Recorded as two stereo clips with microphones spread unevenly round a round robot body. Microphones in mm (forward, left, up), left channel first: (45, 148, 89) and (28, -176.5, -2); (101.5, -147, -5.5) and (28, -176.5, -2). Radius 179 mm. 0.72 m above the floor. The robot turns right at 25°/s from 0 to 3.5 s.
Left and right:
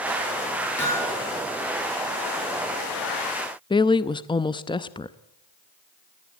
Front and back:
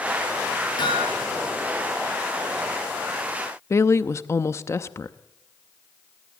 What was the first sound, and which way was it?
Hammering, 5° left.